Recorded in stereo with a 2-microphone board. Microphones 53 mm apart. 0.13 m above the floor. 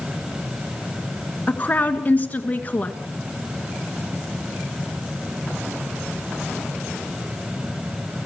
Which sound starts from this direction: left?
A woman speaking, at 1.5 s.